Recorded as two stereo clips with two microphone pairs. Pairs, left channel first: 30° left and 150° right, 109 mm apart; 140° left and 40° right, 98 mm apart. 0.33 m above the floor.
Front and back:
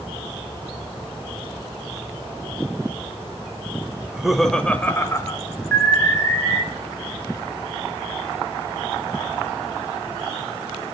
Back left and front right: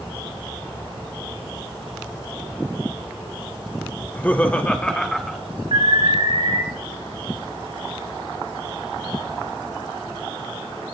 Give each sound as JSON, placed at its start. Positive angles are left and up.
{"t": 4.0, "sound": "laughter", "azimuth_deg": 150, "distance_m": 1.0}
{"t": 5.7, "sound": "an alarm", "azimuth_deg": -45, "distance_m": 5.5}